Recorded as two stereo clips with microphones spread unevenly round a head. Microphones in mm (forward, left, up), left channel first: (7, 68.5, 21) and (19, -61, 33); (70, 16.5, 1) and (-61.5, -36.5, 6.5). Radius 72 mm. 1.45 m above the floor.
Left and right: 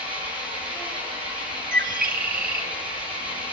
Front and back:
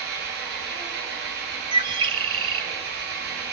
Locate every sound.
0.0 s an engine running: 140° right, 7 m
1.7 s a bird: 105° right, 1.7 m